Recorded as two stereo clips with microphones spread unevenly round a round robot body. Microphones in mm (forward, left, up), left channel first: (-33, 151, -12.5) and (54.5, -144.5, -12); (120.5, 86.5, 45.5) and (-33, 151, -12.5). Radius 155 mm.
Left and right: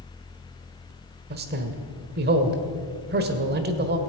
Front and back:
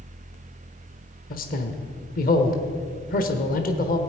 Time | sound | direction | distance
1.3 | a man speaking | 50° right | 1.3 m